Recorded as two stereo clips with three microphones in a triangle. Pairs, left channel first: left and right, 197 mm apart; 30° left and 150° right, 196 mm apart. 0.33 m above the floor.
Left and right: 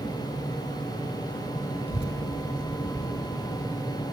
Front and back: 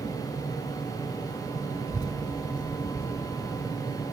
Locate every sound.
1.9 s a child speaking: 105° left; by 4.0 s 20° left